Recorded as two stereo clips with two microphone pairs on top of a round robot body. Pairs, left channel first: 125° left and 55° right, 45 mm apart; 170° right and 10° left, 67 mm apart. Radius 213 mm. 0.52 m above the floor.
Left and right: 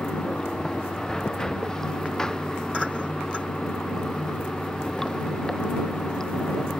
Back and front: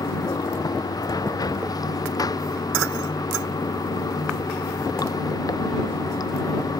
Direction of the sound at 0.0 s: 155° right.